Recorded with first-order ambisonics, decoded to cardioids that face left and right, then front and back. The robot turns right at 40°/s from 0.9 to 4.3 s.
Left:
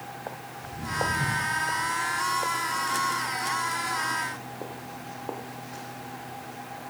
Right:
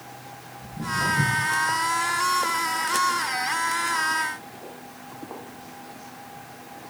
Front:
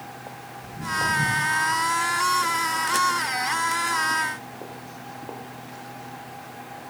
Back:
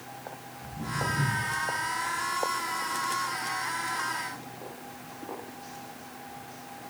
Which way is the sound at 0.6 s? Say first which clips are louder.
Right 3 dB, front 7 dB; 90° right.